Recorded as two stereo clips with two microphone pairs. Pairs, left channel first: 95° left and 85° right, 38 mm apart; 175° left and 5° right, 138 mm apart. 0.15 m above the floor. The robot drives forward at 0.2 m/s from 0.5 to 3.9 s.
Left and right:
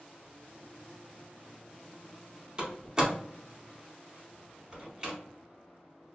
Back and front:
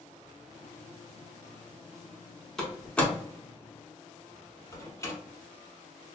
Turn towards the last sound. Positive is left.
turn(degrees=-140)